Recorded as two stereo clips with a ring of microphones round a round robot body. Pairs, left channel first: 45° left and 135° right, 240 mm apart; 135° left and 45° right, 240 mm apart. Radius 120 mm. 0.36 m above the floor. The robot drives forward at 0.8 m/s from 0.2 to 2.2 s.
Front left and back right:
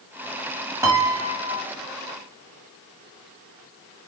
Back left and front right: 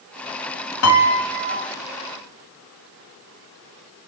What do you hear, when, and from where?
0.8 s a piano: 145° left, 1.7 m; by 1.7 s 155° left, 2 m